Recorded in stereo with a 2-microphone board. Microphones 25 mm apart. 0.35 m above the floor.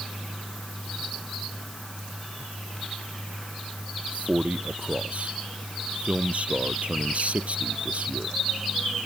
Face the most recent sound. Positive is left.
turn(degrees=-65)  # may be behind; listen again after turning